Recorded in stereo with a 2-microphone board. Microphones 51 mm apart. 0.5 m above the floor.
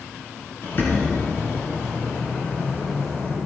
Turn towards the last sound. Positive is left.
turn(degrees=45)  # may be behind; listen again after turning